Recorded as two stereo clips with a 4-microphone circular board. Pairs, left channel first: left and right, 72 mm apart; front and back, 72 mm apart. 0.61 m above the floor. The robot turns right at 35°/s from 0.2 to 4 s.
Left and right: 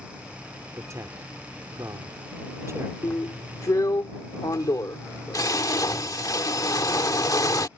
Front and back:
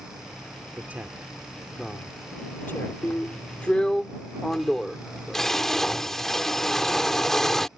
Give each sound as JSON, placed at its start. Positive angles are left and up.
{"t": 0.7, "sound": "a man speaking", "azimuth_deg": -120}
{"t": 3.0, "sound": "a drill", "azimuth_deg": 50}